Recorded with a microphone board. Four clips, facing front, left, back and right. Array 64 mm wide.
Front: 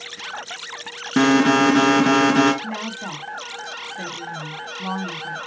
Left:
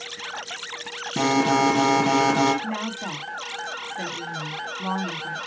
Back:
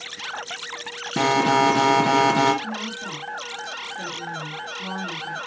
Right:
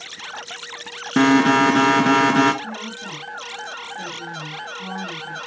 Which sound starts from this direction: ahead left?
A woman speaking, at 2.6 s.